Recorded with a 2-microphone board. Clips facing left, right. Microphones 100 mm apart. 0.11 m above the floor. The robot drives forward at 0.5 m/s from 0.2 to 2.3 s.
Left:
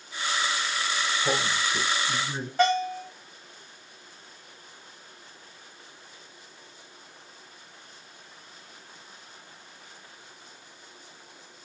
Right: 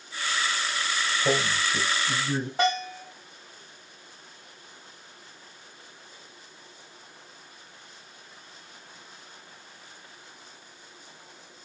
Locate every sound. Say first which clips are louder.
1.2 s a man speaking: right 3 dB; 45° right (ahead or behind), 1.7 m; by 2.5 s 40° right (ahead or behind), 1.9 m
2.6 s a bell: left 5 dB; 20° right (ahead or behind), 4.5 m